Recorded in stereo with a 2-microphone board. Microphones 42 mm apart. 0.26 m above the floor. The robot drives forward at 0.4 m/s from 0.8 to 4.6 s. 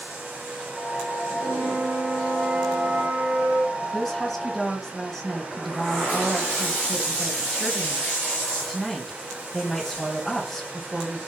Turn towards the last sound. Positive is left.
turn(degrees=0)  # may be behind; listen again after turning